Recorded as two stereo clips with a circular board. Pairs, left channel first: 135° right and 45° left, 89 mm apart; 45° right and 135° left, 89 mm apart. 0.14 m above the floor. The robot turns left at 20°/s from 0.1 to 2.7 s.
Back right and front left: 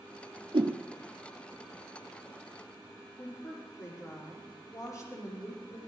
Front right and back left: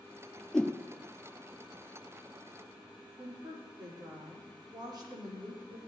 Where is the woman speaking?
175° left, 5.5 m.